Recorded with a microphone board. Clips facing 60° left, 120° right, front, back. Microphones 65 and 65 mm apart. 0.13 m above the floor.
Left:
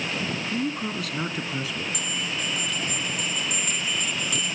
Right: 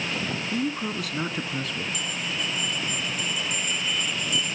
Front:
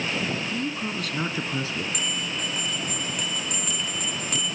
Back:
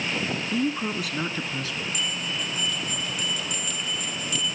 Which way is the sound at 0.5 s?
160° left.